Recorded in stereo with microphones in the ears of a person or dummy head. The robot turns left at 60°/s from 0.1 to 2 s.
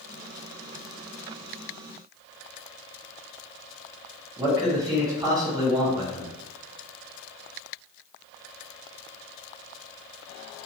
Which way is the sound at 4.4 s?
20° right (ahead or behind).